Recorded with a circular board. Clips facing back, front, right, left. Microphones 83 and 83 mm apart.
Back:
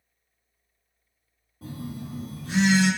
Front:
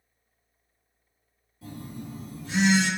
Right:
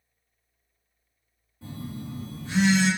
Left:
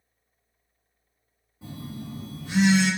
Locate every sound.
1.6 s a phone buzzing: 160° left, 1.8 m